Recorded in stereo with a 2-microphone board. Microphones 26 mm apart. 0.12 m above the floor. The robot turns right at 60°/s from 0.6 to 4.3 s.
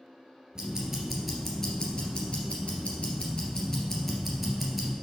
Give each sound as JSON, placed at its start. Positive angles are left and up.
{"t": 0.6, "sound": "ticking", "azimuth_deg": -40, "distance_m": 2.5}